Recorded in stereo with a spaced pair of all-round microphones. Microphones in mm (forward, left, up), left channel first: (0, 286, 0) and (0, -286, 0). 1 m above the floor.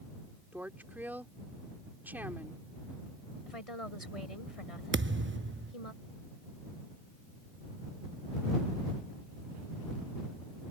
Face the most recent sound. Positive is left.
turn(degrees=-20)  # may be behind; listen again after turning